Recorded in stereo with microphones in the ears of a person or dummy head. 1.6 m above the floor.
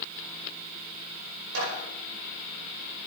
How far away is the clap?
About 5 m.